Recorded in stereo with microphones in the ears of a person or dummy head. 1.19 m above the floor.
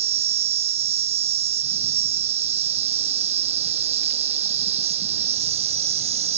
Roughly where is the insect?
Right.